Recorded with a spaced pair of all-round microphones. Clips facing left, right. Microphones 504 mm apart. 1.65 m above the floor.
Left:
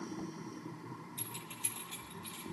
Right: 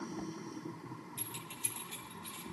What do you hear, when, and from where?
1.2 s keys jangling: 50° right (ahead or behind), 1.3 m; by 2.4 s 80° right, 2.5 m